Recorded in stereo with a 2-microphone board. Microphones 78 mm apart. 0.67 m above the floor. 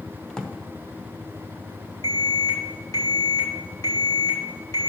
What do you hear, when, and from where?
0.3 s a drawer: 10° left (ahead or behind), 1.0 m
2.0 s an alarm: 50° left (ahead or behind), 2.5 m